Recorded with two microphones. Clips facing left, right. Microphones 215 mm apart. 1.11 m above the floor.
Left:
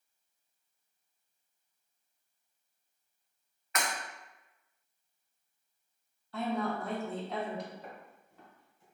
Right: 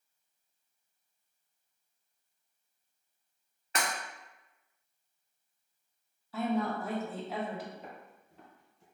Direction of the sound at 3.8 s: 35° right (ahead or behind).